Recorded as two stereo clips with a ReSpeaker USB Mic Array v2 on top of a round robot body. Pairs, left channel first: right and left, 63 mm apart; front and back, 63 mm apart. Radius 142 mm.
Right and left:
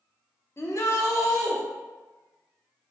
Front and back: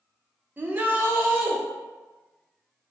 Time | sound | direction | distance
0.6 | a shout | 125° right | 0.6 m